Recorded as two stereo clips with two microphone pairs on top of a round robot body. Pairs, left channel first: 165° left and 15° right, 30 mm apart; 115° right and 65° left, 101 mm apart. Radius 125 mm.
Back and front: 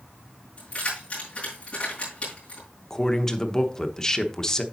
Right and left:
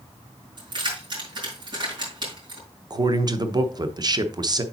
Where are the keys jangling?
110° left, 4.5 m.